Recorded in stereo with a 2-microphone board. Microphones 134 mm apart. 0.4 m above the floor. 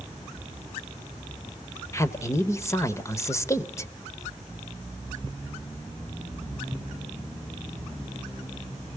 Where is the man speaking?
20° left (ahead or behind), 1.1 m.